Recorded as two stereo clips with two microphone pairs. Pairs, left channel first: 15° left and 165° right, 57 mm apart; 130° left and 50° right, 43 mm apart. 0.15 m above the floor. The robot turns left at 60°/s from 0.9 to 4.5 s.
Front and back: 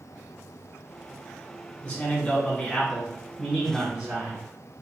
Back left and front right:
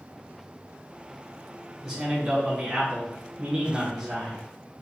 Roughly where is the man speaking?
Ahead left.